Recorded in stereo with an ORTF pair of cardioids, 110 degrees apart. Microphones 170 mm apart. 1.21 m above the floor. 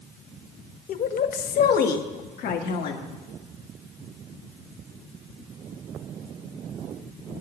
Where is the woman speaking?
50° left, 1.0 m; by 3.1 s 70° left, 2 m.